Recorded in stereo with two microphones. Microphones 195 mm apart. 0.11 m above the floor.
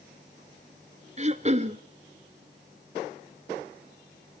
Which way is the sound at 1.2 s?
35° right (ahead or behind).